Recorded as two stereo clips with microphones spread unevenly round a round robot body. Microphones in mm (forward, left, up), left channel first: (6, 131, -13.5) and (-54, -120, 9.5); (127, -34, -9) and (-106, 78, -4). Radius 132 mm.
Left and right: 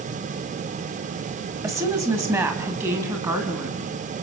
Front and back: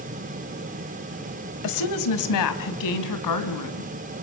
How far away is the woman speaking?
About 1.7 m.